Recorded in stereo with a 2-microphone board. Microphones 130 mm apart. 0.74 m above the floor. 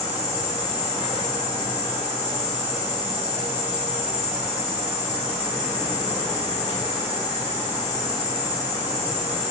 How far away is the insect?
About 3 m.